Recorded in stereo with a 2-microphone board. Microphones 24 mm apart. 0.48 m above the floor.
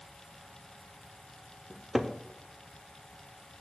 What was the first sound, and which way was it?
A cupboard door, 5° right (ahead or behind).